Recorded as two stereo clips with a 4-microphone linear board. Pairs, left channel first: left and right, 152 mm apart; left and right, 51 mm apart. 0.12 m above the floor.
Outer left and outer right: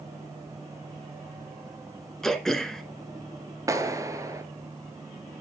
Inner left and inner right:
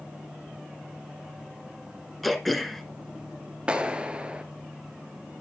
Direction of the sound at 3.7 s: 20° right (ahead or behind).